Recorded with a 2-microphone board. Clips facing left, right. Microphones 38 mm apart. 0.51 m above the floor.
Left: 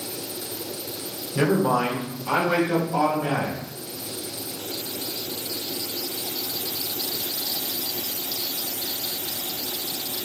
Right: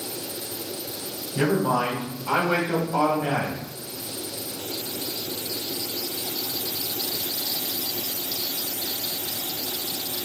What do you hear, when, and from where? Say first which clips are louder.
1.4 s a man speaking: left 1 dB; 40° left (ahead or behind), 1.3 m; by 3.6 s 15° right (ahead or behind), 2.5 m